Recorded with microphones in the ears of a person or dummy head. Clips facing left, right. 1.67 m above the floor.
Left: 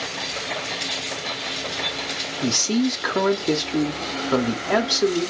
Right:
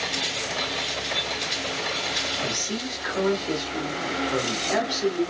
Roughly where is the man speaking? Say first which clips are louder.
Left 13 dB; left.